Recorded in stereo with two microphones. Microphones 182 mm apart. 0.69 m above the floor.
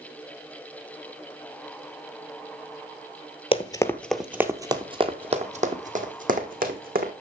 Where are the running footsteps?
30° left (ahead or behind), 0.9 m; by 7.1 s 55° right (ahead or behind), 2.5 m.